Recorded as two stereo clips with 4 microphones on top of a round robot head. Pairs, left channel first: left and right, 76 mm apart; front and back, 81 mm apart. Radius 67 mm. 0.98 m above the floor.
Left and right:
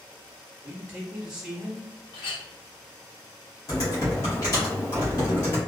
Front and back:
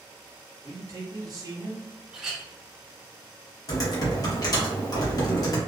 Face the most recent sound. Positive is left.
turn(degrees=35)